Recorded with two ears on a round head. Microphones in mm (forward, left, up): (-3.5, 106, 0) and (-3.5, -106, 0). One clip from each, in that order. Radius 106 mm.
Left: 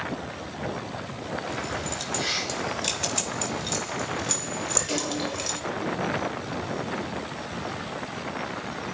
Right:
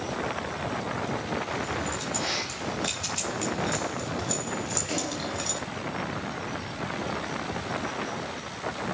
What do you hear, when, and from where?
1.5 s keys jangling: 30° left (ahead or behind), 4.5 m; by 5.6 s 20° left (ahead or behind), 2.5 m